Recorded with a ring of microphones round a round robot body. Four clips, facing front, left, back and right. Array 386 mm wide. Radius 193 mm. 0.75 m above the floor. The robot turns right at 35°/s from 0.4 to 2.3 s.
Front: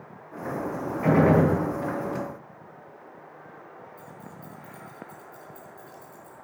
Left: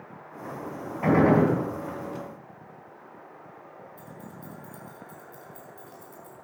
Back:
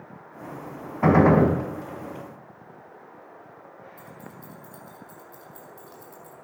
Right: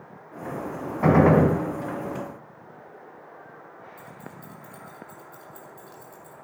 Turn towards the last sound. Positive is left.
turn(degrees=-170)